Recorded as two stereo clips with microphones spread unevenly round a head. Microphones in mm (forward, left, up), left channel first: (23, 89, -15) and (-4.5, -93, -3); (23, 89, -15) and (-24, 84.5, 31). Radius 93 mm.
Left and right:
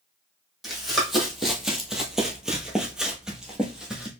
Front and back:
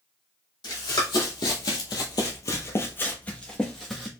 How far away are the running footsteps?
About 1.6 m.